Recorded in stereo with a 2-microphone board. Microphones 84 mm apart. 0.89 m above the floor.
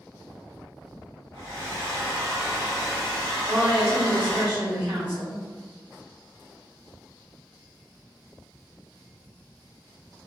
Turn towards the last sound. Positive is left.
turn(degrees=-55)  # may be behind; listen again after turning